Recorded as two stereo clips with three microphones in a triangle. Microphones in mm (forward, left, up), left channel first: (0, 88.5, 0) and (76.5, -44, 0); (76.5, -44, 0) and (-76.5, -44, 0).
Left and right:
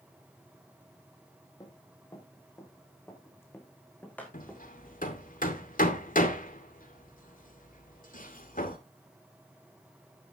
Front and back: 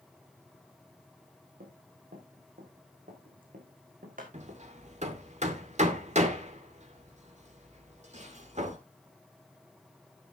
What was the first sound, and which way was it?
Running footsteps, 175° right.